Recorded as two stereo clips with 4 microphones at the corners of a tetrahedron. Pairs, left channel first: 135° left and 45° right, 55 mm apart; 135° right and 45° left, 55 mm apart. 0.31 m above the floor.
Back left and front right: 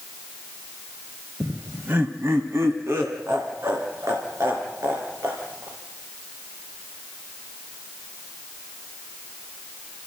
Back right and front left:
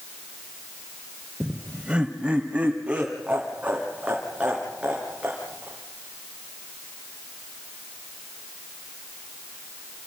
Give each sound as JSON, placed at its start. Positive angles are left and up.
{"t": 1.4, "sound": "laughter", "azimuth_deg": -15, "distance_m": 1.0}